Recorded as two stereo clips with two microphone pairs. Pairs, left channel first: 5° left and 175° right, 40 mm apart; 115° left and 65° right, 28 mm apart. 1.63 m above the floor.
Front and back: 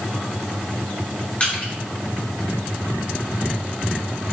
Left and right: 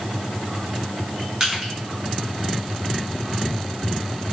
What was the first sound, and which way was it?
Crushing, 5° right.